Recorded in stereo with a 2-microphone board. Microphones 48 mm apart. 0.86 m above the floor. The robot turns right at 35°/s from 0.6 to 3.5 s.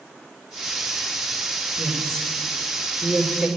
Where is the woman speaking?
40° left (ahead or behind), 2 m; by 3.5 s 20° right (ahead or behind), 2 m.